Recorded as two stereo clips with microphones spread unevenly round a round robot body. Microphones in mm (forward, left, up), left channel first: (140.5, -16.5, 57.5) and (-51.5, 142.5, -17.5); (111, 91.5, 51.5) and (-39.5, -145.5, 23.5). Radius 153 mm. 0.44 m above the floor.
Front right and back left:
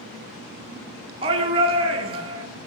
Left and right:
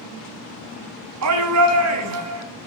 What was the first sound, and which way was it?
A shout, 155° right.